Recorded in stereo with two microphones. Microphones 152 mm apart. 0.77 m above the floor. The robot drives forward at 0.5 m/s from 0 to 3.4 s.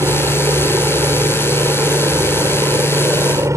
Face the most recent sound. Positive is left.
turn(degrees=-20)  # may be behind; listen again after turning